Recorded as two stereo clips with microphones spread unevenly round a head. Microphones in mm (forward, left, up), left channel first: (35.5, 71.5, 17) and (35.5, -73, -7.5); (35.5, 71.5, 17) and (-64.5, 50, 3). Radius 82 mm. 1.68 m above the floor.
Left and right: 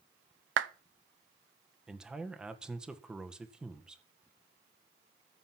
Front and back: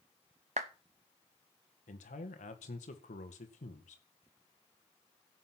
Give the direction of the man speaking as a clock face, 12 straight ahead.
12 o'clock.